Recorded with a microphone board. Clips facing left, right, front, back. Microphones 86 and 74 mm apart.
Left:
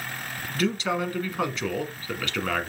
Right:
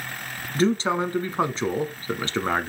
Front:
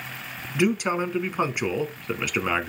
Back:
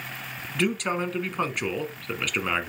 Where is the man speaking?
70° right, 1.2 m.